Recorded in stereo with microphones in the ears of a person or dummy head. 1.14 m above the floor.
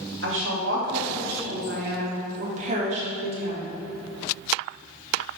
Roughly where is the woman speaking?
Right.